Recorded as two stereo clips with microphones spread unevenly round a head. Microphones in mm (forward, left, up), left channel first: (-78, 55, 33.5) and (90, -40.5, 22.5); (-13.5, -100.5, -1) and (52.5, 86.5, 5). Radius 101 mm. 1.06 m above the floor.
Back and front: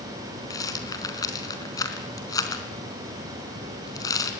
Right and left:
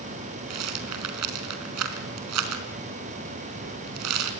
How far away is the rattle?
About 4 m.